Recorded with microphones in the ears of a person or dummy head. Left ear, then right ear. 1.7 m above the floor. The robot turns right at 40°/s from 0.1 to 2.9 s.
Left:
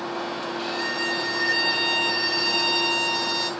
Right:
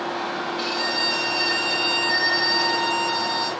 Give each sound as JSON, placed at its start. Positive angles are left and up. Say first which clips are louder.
{"t": 0.6, "sound": "a violin", "louder": "right 4 dB", "azimuth_deg": -60, "distance_m": 4.5}